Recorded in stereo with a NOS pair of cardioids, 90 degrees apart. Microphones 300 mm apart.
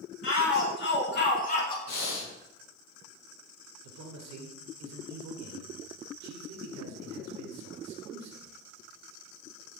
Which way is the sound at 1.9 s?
70° left.